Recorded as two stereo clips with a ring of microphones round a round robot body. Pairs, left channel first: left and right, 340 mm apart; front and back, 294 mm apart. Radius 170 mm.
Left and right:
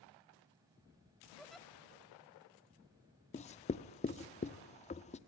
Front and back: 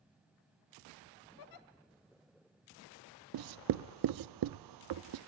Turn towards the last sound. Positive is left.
turn(degrees=160)